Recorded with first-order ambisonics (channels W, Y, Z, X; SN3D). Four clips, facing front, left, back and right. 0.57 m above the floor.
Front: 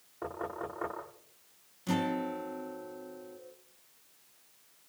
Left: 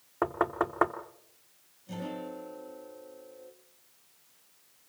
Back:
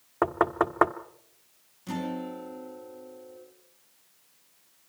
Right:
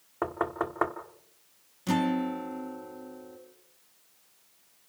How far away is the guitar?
About 4 m.